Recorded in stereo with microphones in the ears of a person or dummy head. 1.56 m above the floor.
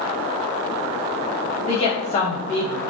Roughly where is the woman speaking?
Left.